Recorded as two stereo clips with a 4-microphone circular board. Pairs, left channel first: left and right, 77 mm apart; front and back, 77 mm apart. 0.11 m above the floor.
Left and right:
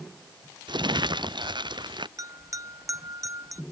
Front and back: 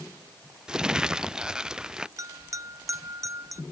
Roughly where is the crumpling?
Right.